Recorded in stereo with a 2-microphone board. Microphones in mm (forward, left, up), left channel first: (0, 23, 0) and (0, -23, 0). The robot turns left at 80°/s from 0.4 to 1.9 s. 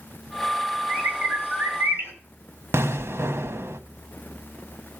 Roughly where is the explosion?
Right.